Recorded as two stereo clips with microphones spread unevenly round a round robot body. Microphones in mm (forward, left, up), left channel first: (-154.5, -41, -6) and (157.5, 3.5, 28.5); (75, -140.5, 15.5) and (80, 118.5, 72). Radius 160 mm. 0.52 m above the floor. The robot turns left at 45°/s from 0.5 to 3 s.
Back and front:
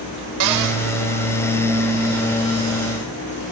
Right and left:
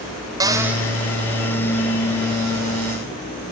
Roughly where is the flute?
I don't hear a flute.